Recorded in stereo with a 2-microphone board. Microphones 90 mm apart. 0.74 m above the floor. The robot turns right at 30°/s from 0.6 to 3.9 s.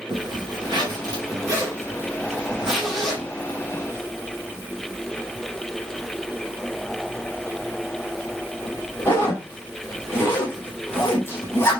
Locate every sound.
0.1 s a zipper: 60° right (ahead or behind), 2 m; by 11.8 s 25° left (ahead or behind), 2 m